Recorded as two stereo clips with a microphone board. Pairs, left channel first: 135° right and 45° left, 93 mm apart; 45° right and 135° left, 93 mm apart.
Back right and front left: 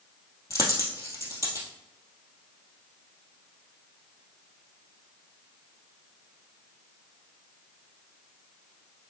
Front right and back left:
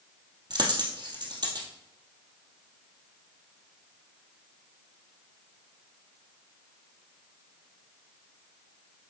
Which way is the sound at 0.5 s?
170° left.